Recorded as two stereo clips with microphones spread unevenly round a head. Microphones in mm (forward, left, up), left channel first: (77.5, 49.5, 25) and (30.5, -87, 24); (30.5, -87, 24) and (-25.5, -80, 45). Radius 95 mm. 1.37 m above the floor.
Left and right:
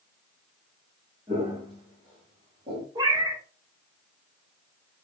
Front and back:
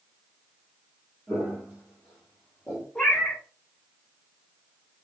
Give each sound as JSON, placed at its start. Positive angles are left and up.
{"t": 1.3, "sound": "footsteps", "azimuth_deg": -170, "distance_m": 2.0}
{"t": 3.0, "sound": "a cat meowing", "azimuth_deg": -125, "distance_m": 0.6}